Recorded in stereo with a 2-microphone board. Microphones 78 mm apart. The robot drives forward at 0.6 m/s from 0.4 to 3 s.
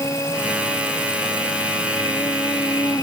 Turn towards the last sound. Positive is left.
turn(degrees=45)  # may be behind; listen again after turning